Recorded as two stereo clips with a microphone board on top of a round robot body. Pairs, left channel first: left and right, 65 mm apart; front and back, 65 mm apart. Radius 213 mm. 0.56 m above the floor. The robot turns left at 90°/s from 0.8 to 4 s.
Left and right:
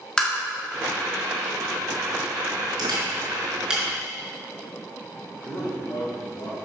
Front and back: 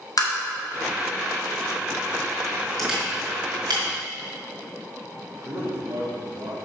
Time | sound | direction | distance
0.2 | tapping | 10° left | 2 m
2.8 | a camera shutter | 90° right | 3.5 m
5.4 | a man speaking | 130° left | 3 m